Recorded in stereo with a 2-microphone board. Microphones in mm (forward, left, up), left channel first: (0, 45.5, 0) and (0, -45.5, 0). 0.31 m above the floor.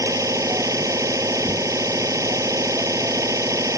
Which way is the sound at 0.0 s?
35° right (ahead or behind).